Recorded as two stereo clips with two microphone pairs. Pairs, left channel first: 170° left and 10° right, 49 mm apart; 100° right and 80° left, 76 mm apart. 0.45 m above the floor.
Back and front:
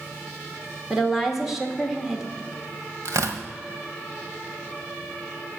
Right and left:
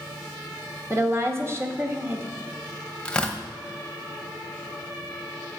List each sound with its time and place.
0.9 s a woman speaking: 75° left, 1.4 m
3.0 s tearing paper: 20° right, 1.2 m